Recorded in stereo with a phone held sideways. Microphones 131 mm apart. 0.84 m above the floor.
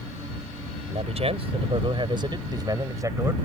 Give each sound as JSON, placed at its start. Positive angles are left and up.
{"t": 0.9, "sound": "a man speaking", "side_deg": -55}